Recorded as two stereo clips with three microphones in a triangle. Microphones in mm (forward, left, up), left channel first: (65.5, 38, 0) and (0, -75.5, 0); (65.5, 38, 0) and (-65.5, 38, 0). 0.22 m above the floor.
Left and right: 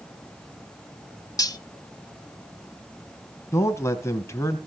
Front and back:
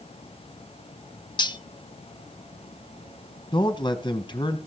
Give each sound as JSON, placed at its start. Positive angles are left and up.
{"t": 1.4, "sound": "cutlery clinking", "azimuth_deg": 20, "distance_m": 0.7}
{"t": 3.5, "sound": "a man speaking", "azimuth_deg": 5, "distance_m": 1.6}